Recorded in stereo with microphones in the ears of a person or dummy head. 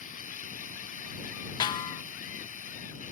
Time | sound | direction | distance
0.0 | running water | 40° left (ahead or behind) | ?
1.6 | a snare drum | 20° left (ahead or behind) | ?